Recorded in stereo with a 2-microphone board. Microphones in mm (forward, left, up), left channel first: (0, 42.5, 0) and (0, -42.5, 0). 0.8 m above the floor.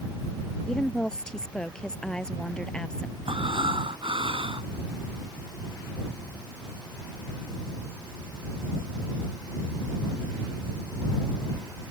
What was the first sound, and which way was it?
A woman speaking, 10° left (ahead or behind).